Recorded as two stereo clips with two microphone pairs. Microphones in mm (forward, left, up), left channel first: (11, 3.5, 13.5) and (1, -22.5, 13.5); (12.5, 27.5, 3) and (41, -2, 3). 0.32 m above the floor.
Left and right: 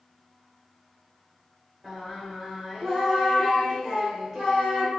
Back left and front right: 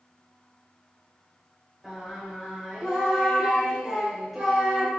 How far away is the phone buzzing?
No phone buzzing in this recording.